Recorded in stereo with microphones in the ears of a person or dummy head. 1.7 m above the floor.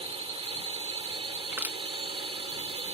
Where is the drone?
25° right (ahead or behind).